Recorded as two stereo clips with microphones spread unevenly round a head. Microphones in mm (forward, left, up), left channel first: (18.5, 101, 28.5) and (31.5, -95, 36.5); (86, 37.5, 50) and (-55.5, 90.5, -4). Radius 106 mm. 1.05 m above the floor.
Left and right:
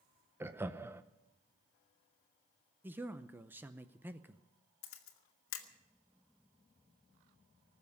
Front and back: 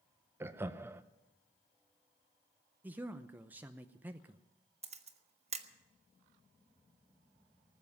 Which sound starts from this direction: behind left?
A camera shutter, at 4.8 s.